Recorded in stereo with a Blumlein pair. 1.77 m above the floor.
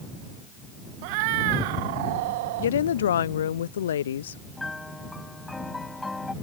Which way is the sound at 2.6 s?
65° left.